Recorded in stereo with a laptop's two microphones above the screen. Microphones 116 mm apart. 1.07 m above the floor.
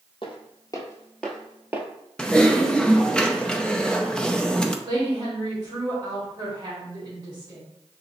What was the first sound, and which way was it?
Footsteps, 45° left (ahead or behind).